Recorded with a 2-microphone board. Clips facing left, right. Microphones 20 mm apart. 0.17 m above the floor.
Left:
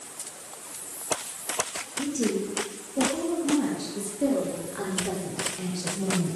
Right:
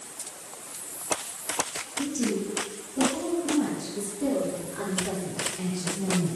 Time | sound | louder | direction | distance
2.0 | a woman speaking | left 1 dB | 65° left (ahead or behind) | 7.5 m